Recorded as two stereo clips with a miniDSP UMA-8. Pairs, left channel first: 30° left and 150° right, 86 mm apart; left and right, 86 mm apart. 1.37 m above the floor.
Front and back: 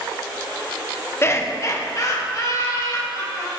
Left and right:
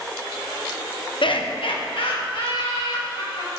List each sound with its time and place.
1.2 s laughter: 90° left, 0.9 m; by 3.5 s 75° left, 4 m